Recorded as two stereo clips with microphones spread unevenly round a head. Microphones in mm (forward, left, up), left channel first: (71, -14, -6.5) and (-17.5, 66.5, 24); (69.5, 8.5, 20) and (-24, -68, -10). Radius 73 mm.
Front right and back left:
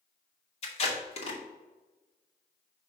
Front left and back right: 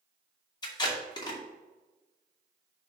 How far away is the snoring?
I don't hear snoring.